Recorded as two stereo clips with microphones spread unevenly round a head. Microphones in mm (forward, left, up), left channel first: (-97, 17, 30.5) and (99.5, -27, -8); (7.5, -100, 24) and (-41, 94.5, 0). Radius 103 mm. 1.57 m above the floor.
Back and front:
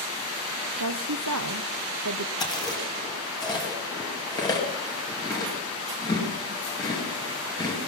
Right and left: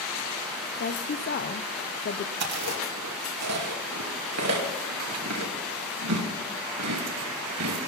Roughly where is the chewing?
Left.